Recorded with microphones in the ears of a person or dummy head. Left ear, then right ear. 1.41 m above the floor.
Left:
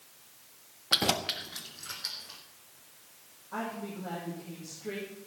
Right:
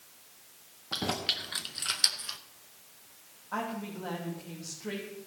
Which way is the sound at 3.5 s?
75° right (ahead or behind).